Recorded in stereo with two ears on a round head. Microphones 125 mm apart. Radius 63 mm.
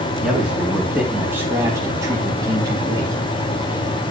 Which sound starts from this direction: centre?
A man speaking, at 0.2 s.